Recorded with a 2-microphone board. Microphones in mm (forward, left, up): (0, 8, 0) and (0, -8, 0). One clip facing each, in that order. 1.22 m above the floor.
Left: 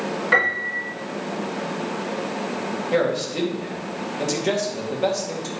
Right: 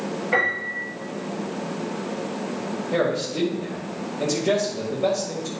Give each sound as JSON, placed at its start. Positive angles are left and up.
{"t": 0.3, "sound": "a piano", "side_deg": 70, "distance_m": 3.5}
{"t": 2.9, "sound": "a man speaking", "side_deg": 45, "distance_m": 2.0}